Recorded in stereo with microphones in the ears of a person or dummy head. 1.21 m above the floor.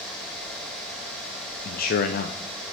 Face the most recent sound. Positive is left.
turn(degrees=45)  # may be behind; listen again after turning